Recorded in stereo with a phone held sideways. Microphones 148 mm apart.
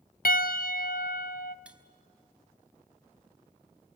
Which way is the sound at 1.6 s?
5° right (ahead or behind).